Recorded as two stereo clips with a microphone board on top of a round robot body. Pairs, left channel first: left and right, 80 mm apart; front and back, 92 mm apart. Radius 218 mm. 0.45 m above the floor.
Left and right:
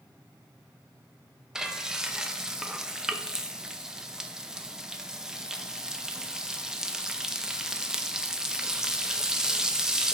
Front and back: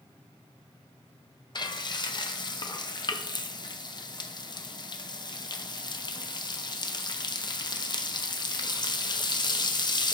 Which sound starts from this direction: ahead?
Frying, at 1.6 s.